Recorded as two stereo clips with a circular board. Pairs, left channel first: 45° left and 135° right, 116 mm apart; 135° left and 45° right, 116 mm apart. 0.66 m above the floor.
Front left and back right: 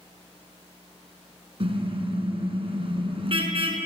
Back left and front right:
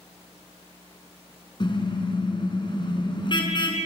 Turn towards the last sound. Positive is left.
turn(degrees=-175)